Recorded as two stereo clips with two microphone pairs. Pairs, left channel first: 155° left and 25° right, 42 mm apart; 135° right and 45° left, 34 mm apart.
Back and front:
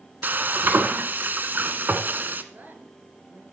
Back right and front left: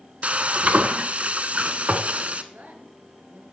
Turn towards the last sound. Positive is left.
turn(degrees=15)